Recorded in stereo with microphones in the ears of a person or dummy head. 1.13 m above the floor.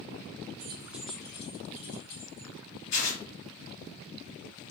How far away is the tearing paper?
About 2 m.